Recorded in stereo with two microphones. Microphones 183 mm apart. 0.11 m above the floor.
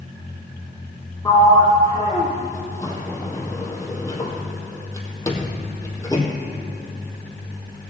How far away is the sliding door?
About 1.7 m.